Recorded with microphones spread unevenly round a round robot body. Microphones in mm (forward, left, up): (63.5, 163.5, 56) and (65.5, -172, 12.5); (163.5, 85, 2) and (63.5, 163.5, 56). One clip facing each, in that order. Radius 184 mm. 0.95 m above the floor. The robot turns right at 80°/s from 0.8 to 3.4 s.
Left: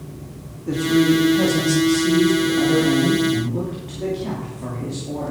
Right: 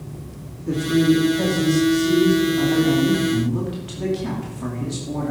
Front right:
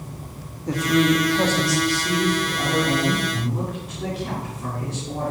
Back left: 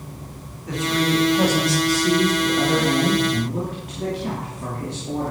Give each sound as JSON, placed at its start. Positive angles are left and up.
{"t": 0.7, "sound": "a man speaking", "azimuth_deg": 0, "distance_m": 2.5}